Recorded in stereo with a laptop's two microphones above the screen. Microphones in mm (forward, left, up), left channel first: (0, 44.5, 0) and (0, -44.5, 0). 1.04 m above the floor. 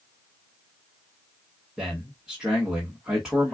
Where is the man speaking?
5° right (ahead or behind), 1.3 m.